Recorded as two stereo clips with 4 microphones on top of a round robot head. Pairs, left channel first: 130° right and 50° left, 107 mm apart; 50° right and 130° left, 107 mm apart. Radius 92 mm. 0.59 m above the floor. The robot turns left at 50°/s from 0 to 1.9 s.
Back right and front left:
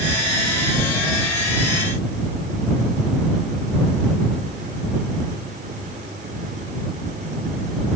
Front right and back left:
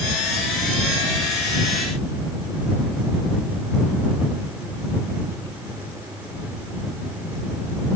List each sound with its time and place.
Only background noise.